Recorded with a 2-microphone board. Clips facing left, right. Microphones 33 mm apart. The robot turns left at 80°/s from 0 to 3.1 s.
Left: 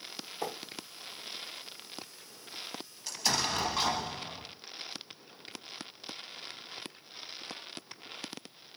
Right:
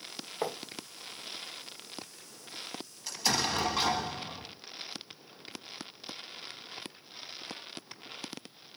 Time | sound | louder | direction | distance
0.4 | writing | right 3 dB | 35° right (ahead or behind) | 1.6 m
3.1 | an explosion | right 1 dB | 5° right (ahead or behind) | 1.0 m